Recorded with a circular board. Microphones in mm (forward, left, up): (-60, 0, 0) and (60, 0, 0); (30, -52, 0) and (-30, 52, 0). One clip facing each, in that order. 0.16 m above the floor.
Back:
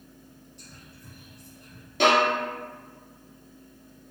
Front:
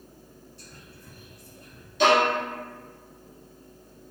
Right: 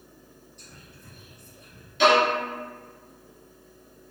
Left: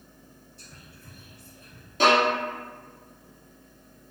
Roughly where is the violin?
Behind.